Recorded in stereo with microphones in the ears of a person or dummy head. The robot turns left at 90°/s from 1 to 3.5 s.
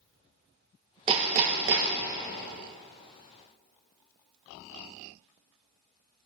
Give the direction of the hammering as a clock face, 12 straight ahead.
1 o'clock.